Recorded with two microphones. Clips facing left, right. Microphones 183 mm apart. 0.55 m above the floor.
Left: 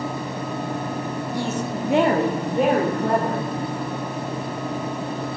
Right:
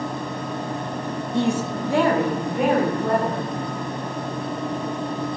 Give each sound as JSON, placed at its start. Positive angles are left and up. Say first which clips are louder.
{"t": 1.3, "sound": "a woman speaking", "louder": "right 6 dB", "side_deg": -25, "distance_m": 0.7}